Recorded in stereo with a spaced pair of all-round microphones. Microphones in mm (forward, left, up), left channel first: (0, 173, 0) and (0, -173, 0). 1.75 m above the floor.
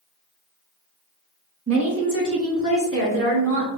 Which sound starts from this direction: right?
A woman speaking, at 1.7 s.